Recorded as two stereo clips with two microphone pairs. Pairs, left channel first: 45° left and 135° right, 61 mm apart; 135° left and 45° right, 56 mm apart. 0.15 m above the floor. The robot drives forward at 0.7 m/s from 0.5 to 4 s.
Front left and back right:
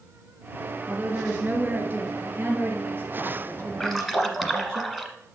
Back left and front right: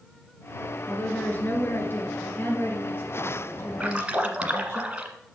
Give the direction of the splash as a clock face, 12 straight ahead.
1 o'clock.